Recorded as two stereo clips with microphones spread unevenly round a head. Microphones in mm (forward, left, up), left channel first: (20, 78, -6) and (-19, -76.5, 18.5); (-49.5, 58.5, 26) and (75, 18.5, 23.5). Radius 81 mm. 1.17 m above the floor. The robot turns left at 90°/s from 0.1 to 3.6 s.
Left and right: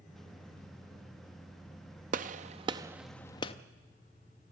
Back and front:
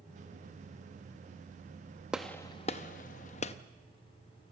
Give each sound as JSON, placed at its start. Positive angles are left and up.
{"t": 2.1, "sound": "a gunshot", "azimuth_deg": -100, "distance_m": 0.7}